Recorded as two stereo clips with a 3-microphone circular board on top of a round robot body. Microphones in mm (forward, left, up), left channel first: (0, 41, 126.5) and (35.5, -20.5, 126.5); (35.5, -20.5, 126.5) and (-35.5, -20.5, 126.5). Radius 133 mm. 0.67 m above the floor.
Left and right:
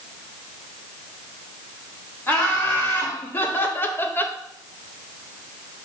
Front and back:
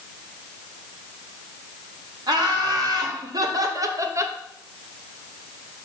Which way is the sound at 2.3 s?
Straight behind.